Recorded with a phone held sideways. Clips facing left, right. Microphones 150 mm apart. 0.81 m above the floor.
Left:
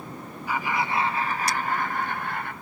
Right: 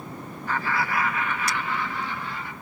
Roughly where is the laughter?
Centre.